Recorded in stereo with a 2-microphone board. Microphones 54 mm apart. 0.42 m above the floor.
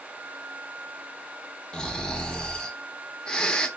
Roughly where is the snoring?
Centre.